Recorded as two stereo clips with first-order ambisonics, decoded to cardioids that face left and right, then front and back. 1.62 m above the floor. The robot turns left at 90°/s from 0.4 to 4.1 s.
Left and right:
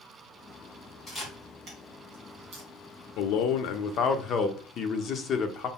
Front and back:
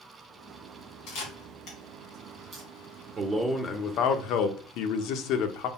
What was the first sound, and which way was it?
A camera shutter, 15° left.